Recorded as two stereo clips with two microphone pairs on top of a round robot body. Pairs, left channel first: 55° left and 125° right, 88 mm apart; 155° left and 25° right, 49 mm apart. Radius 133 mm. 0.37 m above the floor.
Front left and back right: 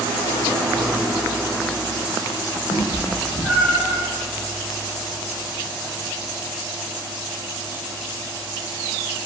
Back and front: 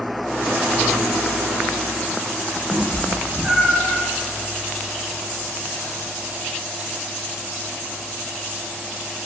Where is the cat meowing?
75° left, 0.5 m; by 4.0 s 35° left, 1.1 m.